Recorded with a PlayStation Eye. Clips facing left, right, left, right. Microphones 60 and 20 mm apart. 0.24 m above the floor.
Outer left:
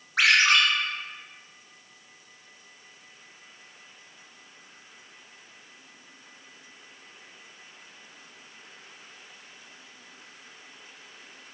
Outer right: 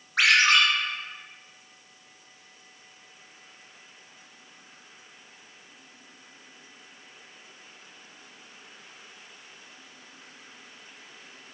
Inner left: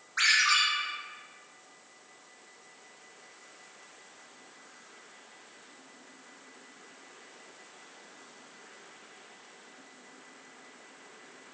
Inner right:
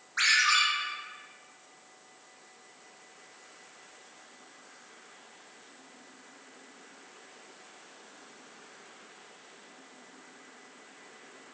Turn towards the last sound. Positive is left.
turn(degrees=0)  # may be behind; listen again after turning